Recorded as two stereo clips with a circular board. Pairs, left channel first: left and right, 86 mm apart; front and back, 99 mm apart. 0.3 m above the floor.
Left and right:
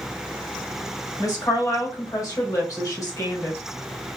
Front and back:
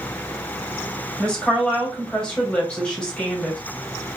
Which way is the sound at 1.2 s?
75° left.